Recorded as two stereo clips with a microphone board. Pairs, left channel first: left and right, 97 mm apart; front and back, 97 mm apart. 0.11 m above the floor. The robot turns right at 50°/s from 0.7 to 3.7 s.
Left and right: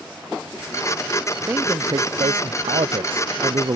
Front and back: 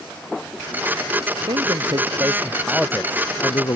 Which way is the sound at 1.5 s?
160° right.